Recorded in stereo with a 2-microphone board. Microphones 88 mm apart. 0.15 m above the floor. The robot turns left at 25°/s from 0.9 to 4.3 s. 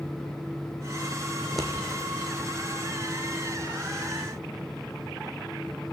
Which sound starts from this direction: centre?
Scissors, at 1.4 s.